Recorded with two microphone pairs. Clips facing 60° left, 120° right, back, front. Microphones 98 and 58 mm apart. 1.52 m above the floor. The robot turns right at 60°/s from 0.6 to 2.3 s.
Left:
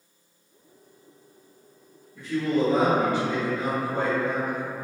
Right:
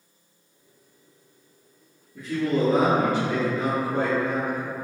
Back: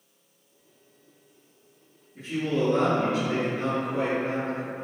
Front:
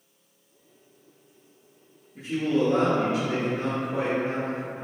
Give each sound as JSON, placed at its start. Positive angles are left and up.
{"t": 2.1, "sound": "a man speaking", "azimuth_deg": -75, "distance_m": 1.0}